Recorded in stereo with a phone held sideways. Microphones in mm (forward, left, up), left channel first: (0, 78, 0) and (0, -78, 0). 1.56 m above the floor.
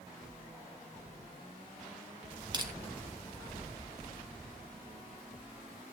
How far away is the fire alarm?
No fire alarm in this recording.